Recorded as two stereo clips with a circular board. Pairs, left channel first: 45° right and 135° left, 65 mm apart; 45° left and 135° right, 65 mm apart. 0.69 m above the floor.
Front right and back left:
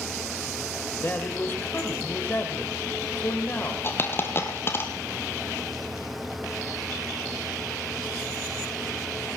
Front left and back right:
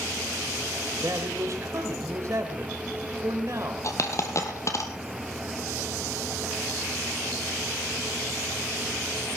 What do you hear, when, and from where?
1.0 s a man speaking: 100° right, 3.5 m
3.8 s a dropped coin: 5° left, 2 m